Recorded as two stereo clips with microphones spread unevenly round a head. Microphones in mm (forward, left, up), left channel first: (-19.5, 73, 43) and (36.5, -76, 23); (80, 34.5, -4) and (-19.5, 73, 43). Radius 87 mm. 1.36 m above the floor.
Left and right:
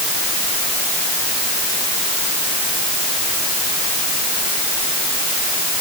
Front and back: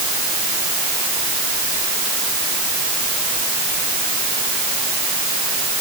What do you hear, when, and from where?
Only background noise.